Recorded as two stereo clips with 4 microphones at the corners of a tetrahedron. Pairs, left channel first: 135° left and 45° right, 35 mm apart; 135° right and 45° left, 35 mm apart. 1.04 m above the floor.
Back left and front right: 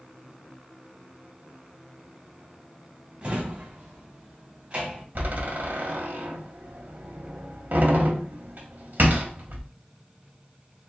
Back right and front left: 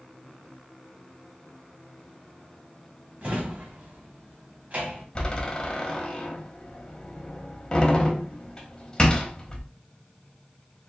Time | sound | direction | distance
3.2 | a drawer | 5° left | 1.6 m
5.2 | a door slam | 65° right | 1.2 m